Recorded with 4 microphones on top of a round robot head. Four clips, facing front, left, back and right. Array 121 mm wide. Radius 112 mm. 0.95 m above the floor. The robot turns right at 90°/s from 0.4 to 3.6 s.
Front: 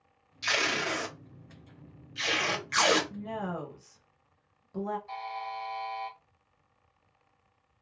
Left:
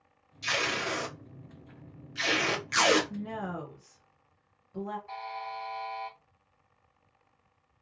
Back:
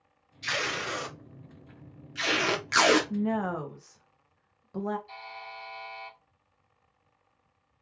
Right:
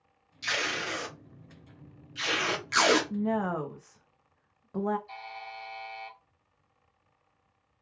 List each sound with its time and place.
0.4 s tape being pulled: 20° right, 0.8 m; by 3.0 s 145° right, 0.8 m
3.1 s a woman speaking: 160° right, 0.6 m; by 5.0 s 115° right, 0.6 m
5.1 s a buzzer: 55° left, 0.8 m